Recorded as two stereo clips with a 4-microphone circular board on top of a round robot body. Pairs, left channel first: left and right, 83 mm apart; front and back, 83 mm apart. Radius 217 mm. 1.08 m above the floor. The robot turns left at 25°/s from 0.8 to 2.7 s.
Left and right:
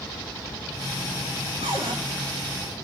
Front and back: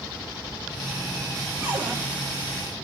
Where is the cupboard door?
100° right, 5.5 m; by 1.9 s 105° right, 5.5 m.